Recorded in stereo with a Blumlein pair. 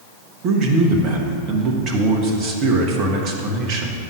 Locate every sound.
0.4 s a man speaking: 35° right, 1.1 m